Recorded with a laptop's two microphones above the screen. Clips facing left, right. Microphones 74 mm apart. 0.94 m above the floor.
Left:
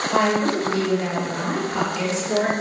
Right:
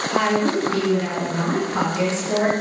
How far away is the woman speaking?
About 1.1 m.